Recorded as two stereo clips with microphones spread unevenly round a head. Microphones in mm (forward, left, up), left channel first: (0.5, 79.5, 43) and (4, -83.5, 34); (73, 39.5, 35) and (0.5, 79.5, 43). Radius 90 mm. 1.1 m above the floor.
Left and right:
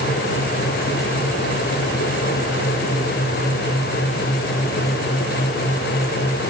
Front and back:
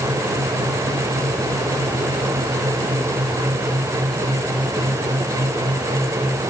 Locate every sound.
Only background noise.